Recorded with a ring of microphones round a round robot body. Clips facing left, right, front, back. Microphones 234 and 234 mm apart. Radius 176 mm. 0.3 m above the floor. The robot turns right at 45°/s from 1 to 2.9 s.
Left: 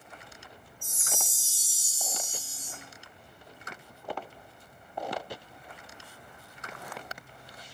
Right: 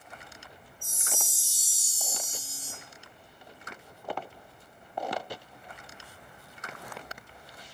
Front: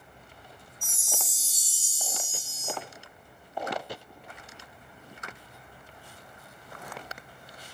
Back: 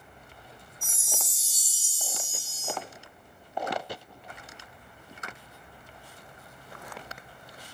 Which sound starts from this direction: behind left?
A chime, at 0.8 s.